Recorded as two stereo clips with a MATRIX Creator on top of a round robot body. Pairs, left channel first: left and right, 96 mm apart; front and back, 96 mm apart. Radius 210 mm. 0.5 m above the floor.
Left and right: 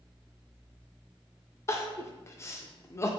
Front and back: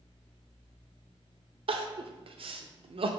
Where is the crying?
155° left, 0.6 m.